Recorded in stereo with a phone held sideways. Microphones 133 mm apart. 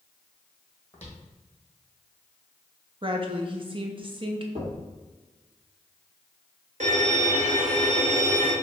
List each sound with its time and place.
0.9 s footsteps: 10° left (ahead or behind), 2 m
3.0 s a woman speaking: 40° right (ahead or behind), 0.7 m
4.5 s knocking: 55° right (ahead or behind), 1.7 m
6.8 s a violin: 65° right (ahead or behind), 1.5 m